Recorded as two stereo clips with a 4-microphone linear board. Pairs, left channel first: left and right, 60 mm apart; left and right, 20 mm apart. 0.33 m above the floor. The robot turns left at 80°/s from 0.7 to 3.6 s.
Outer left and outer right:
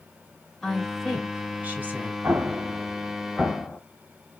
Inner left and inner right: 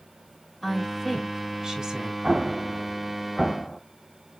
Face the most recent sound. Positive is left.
turn(degrees=5)  # may be behind; listen again after turning